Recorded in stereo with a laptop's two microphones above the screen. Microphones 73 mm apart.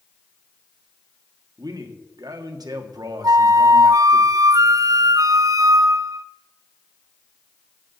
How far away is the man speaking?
About 1.5 m.